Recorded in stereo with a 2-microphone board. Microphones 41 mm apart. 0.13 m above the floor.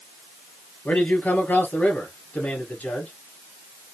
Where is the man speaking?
50° left (ahead or behind), 3 m.